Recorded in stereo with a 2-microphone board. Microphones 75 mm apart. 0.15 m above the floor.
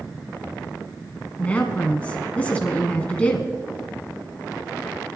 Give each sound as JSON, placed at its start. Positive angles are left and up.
{"t": 1.4, "sound": "a woman speaking", "side_deg": 20, "distance_m": 1.1}